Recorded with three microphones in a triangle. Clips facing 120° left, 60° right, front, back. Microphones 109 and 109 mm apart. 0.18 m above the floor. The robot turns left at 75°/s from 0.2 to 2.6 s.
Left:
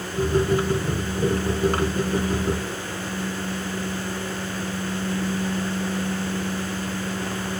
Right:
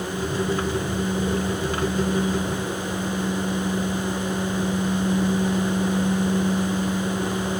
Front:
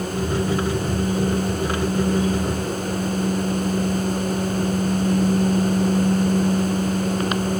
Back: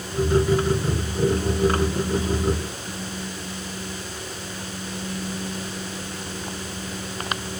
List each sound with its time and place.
Only background noise.